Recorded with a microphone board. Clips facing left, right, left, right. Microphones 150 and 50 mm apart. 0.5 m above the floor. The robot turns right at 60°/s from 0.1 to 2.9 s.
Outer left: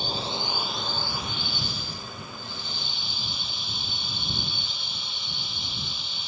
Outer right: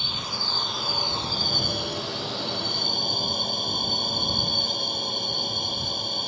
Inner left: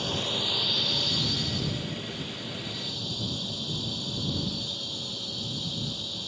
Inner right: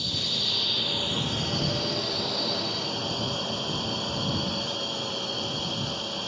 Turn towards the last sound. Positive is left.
turn(degrees=-50)